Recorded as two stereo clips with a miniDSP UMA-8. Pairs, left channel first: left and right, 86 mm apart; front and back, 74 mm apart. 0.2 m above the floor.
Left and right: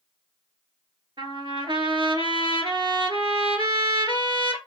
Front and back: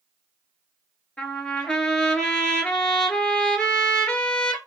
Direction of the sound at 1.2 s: 75° right.